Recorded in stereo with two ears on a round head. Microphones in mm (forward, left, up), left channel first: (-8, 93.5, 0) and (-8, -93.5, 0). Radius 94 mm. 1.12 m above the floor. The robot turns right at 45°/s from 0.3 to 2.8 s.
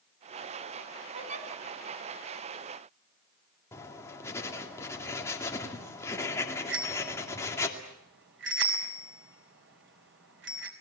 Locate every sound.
1.1 s a giggle: 25° right (ahead or behind), 3.5 m; by 1.5 s 40° right (ahead or behind), 3.5 m
3.7 s writing: 10° left (ahead or behind), 2.5 m
6.7 s a bicycle bell: 55° right (ahead or behind), 4 m